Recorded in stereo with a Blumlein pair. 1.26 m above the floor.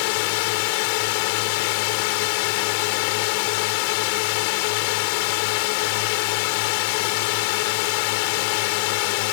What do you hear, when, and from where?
0.0 s a drone: 45° left